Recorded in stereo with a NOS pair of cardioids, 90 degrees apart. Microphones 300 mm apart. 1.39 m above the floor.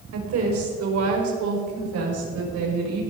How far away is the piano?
No piano in this recording.